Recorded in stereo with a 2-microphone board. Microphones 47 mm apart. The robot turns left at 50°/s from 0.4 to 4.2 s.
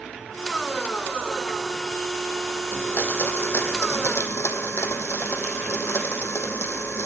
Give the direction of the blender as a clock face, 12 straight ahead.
7 o'clock.